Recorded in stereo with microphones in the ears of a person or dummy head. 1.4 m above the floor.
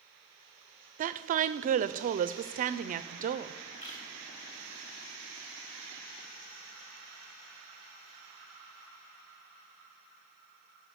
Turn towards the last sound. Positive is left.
turn(degrees=35)  # may be behind; listen again after turning